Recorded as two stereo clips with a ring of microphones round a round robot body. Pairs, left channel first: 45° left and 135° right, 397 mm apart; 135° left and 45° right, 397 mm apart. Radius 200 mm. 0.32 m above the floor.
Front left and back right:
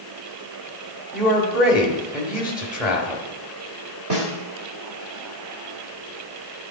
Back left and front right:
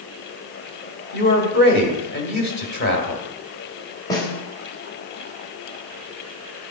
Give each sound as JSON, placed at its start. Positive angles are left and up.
{"t": 1.1, "sound": "a man speaking", "azimuth_deg": 140, "distance_m": 1.5}
{"t": 4.1, "sound": "a snare drum", "azimuth_deg": -150, "distance_m": 1.6}